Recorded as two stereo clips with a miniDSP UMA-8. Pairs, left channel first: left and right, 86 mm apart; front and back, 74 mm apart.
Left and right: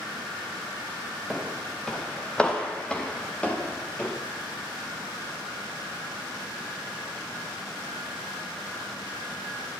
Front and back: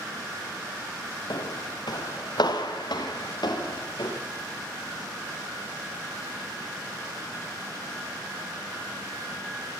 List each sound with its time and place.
1.3 s footsteps: 5° left, 3.5 m; by 4.1 s 15° left, 7 m